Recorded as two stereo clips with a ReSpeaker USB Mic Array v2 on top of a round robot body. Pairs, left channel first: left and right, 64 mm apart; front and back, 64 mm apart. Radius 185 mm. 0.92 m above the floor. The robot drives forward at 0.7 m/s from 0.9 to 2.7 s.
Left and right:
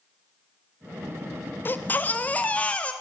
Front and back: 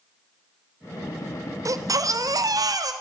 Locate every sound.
1.6 s a baby crying: 145° left, 1.3 m; by 2.9 s 160° left, 1.9 m